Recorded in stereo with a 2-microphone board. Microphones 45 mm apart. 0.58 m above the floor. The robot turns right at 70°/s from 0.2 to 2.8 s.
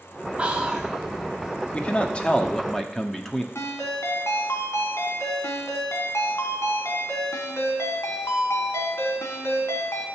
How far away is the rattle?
No rattle in this recording.